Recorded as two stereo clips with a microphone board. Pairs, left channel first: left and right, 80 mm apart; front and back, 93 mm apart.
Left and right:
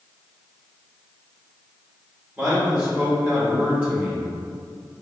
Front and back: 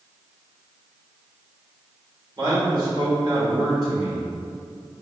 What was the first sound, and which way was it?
A man speaking, 155° right.